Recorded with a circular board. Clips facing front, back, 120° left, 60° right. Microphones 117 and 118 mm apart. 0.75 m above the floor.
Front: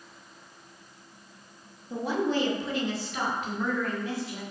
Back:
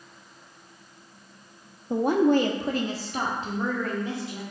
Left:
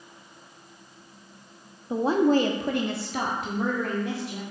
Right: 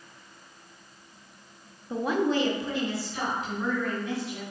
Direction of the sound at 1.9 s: 175° right.